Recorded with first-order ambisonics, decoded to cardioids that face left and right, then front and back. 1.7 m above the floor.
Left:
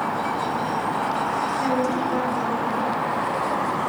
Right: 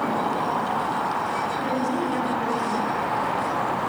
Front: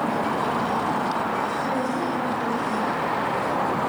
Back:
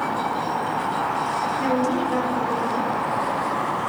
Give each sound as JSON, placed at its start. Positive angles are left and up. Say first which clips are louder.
{"t": 1.6, "sound": "a woman speaking", "louder": "left 2 dB, back 3 dB", "azimuth_deg": 155, "distance_m": 6.0}